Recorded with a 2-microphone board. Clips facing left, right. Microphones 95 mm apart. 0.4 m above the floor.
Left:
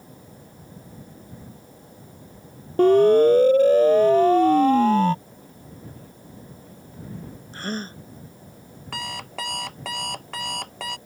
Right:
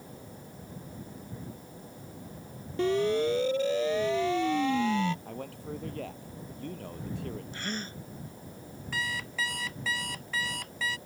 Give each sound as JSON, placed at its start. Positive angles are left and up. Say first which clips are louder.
{"t": 2.8, "sound": "a siren", "louder": "left 12 dB", "side_deg": 50}
{"t": 5.2, "sound": "a man speaking", "louder": "right 7 dB", "side_deg": -80}
{"t": 7.5, "sound": "a gasp", "louder": "left 6 dB", "side_deg": 40}
{"t": 8.9, "sound": "an alarm clock", "louder": "left 2 dB", "side_deg": 65}